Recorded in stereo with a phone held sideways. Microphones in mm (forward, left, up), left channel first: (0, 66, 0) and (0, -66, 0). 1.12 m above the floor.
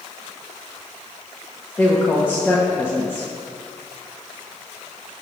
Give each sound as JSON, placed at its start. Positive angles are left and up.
{"t": 1.8, "sound": "a woman speaking", "side_deg": 15, "distance_m": 1.0}